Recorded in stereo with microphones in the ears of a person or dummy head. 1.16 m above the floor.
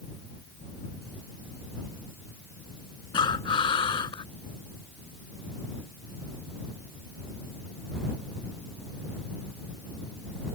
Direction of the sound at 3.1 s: 25° left (ahead or behind).